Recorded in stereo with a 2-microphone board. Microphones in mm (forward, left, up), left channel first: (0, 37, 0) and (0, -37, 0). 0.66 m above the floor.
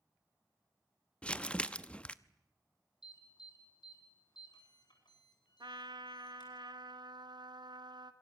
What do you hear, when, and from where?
1.2 s crumpling: 15° left (ahead or behind), 0.8 m
3.0 s an alarm: 70° left (ahead or behind), 8.5 m
5.6 s a trumpet: 75° right (ahead or behind), 1.6 m